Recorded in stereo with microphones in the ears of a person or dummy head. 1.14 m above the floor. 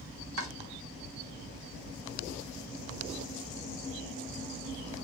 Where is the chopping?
70° right (ahead or behind), 1.0 m.